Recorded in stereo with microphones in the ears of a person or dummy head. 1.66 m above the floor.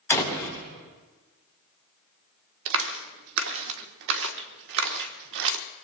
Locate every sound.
0.1 s a door slam: 15° left (ahead or behind), 4 m
2.7 s a clap: 65° right (ahead or behind), 1.4 m